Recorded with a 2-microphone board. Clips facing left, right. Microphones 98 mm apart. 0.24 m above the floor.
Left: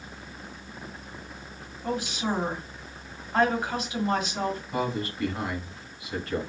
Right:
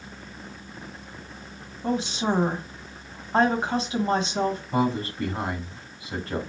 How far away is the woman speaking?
About 1.2 m.